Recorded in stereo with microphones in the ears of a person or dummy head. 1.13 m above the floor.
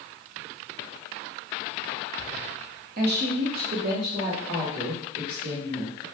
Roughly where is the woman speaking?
Right.